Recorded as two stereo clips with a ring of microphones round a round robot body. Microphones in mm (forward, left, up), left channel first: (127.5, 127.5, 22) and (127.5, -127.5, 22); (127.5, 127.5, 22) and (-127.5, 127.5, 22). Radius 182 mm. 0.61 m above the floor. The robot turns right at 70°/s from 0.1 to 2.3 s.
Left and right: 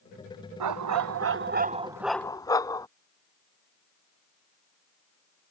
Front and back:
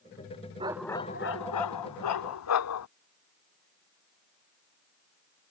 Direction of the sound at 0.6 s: 105° right.